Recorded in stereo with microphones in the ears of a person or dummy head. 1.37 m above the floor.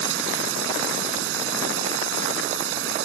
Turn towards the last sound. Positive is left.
turn(degrees=-75)  # may be behind; listen again after turning